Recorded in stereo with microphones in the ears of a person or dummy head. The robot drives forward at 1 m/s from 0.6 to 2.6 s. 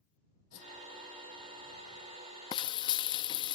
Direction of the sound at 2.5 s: 15° left (ahead or behind).